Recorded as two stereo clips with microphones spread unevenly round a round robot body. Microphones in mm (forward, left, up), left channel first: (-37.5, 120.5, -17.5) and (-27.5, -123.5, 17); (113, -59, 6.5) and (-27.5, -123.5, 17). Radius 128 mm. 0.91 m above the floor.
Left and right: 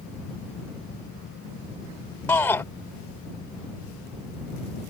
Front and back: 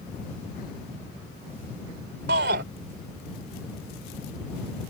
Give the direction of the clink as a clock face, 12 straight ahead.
I don't hear a clink.